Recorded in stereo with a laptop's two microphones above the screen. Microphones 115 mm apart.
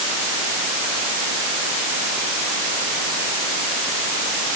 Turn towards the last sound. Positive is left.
No sound to turn to.